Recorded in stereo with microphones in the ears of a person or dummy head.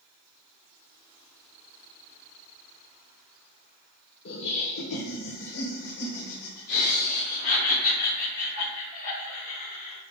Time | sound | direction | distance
4.2 | laughter | 55° left (ahead or behind) | 1.0 m